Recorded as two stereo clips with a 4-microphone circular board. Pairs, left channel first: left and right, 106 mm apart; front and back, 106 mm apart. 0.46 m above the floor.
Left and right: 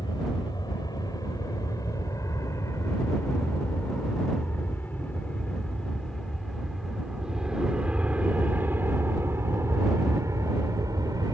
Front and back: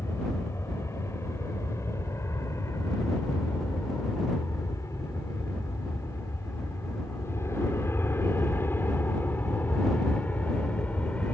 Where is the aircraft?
55° left; by 11.3 s 70° right.